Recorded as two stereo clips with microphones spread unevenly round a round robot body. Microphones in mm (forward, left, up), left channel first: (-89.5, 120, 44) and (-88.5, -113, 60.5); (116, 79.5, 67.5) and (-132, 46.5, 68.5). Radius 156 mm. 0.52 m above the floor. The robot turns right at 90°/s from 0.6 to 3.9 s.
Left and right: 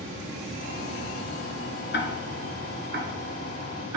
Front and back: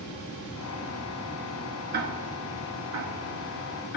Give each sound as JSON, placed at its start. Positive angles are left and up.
{"t": 1.9, "sound": "ticking", "azimuth_deg": 135, "distance_m": 1.3}